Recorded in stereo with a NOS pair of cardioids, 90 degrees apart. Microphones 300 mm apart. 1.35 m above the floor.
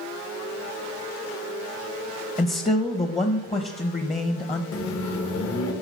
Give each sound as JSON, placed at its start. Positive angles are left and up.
{"t": 2.4, "sound": "a man speaking", "azimuth_deg": 20, "distance_m": 0.9}
{"t": 4.7, "sound": "a microwave", "azimuth_deg": 50, "distance_m": 1.4}